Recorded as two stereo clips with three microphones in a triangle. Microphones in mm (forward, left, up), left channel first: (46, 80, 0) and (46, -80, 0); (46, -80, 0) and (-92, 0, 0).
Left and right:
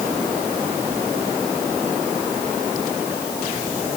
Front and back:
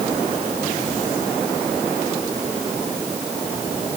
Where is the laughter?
No laughter in this recording.